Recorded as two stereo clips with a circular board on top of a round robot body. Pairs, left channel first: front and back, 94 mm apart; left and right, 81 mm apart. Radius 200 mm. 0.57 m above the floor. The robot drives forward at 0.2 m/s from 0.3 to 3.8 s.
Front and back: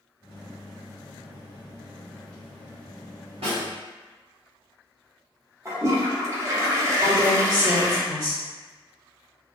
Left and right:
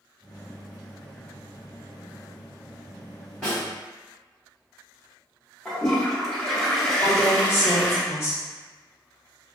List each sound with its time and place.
3.4 s a snare drum: 170° left, 0.7 m
5.7 s a toilet flushing: 170° left, 0.9 m
7.0 s a woman speaking: 140° left, 1.7 m